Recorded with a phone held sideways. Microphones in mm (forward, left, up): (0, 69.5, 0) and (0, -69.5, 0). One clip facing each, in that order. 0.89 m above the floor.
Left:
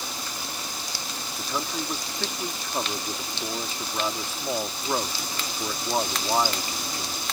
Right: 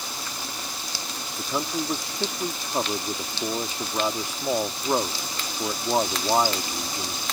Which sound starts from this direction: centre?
A man speaking, at 1.4 s.